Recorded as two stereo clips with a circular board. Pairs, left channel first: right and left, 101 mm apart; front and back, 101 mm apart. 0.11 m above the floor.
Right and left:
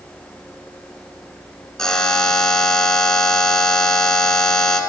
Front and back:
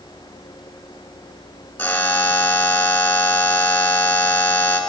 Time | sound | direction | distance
1.8 | a buzzer | 20° right | 0.8 m